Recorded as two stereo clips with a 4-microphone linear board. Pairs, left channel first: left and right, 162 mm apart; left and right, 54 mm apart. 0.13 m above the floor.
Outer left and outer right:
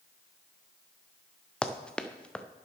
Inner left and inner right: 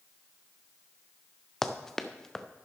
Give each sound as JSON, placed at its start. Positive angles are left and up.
{"t": 1.6, "sound": "running footsteps", "side_deg": 5, "distance_m": 1.0}